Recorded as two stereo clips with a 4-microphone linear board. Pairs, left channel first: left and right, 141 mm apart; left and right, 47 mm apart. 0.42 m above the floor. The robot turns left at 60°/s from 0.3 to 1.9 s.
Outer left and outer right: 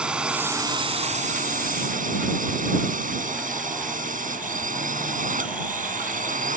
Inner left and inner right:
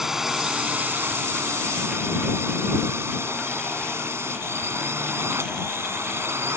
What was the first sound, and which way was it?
A drone, 10° right.